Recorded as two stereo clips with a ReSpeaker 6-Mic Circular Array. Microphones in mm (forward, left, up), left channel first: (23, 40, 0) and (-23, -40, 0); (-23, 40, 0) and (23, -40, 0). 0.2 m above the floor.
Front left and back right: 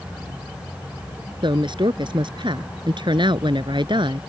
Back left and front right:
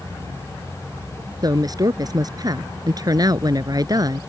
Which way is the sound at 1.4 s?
100° right.